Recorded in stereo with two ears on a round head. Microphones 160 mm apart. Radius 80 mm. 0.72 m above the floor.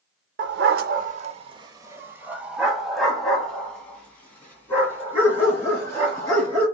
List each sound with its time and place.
0.4 s a dog barking: 65° right (ahead or behind), 0.7 m; by 6.7 s 15° left (ahead or behind), 3.5 m